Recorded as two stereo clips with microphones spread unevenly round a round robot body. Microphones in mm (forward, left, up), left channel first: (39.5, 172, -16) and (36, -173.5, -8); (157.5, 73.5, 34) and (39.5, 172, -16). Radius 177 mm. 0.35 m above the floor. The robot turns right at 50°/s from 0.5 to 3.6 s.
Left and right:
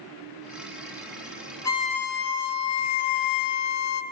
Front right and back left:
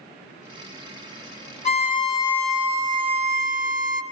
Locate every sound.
1.6 s a violin: 5° left, 0.8 m; by 4.0 s 105° left, 0.8 m